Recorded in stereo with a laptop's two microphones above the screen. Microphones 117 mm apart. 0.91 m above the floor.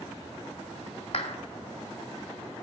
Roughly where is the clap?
Left.